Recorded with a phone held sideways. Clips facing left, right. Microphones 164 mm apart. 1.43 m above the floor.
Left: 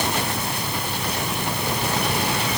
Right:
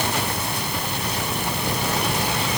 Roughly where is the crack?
No crack in this recording.